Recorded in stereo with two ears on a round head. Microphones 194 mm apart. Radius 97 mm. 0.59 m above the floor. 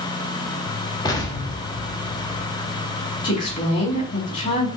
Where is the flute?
I don't hear a flute.